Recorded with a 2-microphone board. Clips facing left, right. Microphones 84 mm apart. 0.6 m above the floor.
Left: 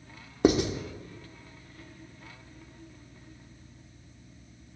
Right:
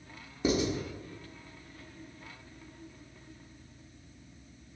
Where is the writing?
60° left (ahead or behind), 0.9 m.